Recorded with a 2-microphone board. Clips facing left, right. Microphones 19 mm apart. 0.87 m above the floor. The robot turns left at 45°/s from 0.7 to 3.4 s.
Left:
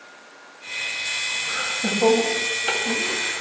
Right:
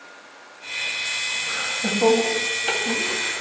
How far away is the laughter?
About 1.6 m.